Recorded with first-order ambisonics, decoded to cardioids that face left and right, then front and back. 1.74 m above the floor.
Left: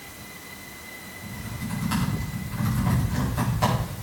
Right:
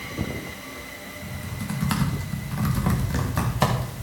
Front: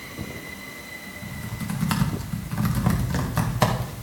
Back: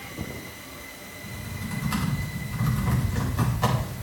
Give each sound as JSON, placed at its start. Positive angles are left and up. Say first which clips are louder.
{"t": 1.2, "sound": "typing on a keyboard", "louder": "right 2 dB, front 2 dB", "azimuth_deg": -35, "distance_m": 2.0}